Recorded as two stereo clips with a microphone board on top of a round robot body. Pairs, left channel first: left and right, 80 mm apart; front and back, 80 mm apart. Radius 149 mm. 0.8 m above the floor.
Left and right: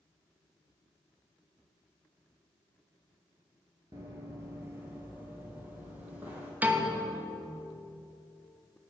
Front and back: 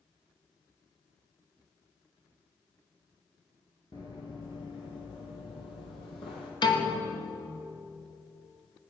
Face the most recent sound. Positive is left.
turn(degrees=-20)